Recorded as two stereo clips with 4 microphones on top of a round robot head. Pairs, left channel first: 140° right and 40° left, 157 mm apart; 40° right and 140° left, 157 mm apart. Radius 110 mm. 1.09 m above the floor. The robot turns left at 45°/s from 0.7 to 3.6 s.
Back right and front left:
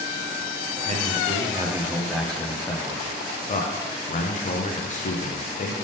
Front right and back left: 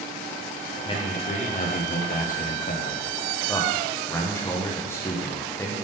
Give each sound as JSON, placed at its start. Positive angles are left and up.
{"t": 0.8, "sound": "a man speaking", "azimuth_deg": 10, "distance_m": 0.8}